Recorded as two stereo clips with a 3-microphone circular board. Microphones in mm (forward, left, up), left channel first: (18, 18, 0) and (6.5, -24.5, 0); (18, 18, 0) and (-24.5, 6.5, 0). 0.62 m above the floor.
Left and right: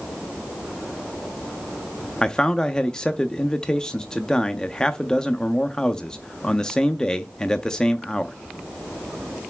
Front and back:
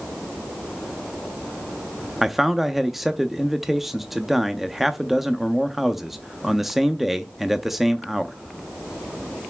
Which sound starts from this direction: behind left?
A man speaking, at 2.2 s.